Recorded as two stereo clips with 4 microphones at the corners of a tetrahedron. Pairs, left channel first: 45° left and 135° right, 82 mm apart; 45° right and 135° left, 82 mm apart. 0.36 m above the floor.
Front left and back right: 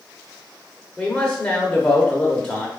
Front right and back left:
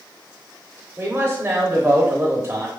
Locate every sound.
1.0 s a man speaking: 115° left, 0.9 m